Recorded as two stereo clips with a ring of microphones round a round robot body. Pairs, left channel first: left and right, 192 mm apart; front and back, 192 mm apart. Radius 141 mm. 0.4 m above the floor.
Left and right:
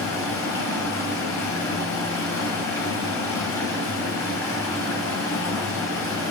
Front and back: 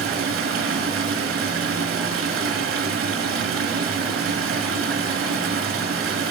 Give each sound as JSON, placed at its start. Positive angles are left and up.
{"t": 0.0, "sound": "running water", "azimuth_deg": 170, "distance_m": 5.5}